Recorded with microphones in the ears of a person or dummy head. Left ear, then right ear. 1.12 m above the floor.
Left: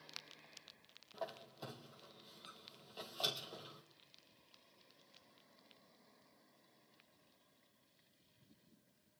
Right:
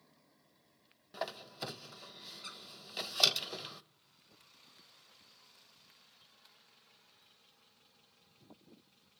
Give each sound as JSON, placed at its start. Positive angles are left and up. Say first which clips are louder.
{"t": 1.1, "sound": "a squeak", "louder": "right 7 dB", "side_deg": -60, "distance_m": 0.6}